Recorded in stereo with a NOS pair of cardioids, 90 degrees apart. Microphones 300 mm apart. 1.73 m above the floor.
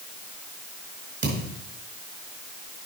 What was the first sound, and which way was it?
A thud, 40° right.